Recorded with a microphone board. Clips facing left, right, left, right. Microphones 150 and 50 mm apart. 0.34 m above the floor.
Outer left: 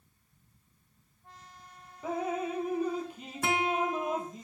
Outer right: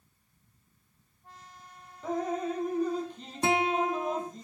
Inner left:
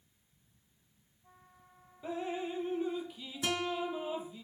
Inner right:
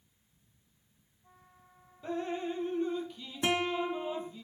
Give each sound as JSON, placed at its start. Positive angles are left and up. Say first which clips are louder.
{"t": 2.0, "sound": "dripping", "louder": "outer right 2 dB, inner right 2 dB", "side_deg": 5, "distance_m": 2.0}
{"t": 3.4, "sound": "a guitar", "louder": "outer right 3 dB, inner right 4 dB", "side_deg": -25, "distance_m": 3.0}